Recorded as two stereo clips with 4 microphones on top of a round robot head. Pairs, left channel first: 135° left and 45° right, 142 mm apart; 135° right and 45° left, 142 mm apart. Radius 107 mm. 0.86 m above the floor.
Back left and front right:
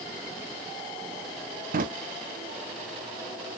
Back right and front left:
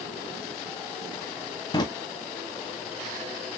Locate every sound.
1.7 s a drawer: 75° right, 0.5 m